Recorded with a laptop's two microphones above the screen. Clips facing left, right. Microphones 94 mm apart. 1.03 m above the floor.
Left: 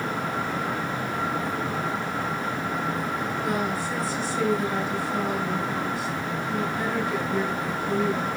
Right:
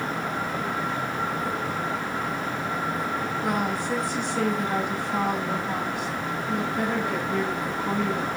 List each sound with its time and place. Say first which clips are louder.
3.4 s a woman speaking: right 1 dB; 50° right (ahead or behind), 6.5 m